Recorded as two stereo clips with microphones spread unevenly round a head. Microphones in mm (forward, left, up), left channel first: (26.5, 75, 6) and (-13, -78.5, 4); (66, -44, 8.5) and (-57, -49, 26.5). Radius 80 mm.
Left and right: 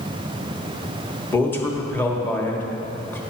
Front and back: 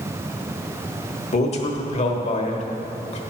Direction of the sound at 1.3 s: Straight ahead.